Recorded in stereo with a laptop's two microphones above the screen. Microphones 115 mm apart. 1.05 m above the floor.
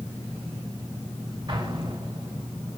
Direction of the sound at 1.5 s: 45° right (ahead or behind).